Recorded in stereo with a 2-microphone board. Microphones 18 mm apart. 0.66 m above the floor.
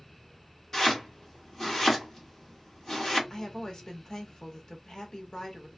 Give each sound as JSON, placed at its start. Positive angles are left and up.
{"t": 0.7, "sound": "chopping", "side_deg": 25, "distance_m": 1.4}
{"t": 3.3, "sound": "a woman speaking", "side_deg": 45, "distance_m": 0.8}